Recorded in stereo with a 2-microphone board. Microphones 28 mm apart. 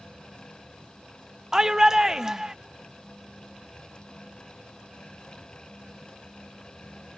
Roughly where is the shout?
Centre.